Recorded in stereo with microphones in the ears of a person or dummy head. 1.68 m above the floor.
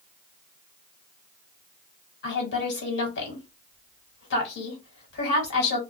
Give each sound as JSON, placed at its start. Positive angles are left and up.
{"t": 2.2, "sound": "a woman speaking", "side_deg": 60, "distance_m": 1.5}